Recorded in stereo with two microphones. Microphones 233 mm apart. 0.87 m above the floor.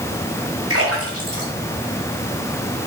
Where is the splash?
85° right, 3 m.